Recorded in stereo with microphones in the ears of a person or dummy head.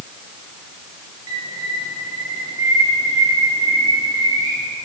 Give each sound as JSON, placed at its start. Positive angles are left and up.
{"t": 1.3, "sound": "a bird", "side_deg": -25, "distance_m": 4.0}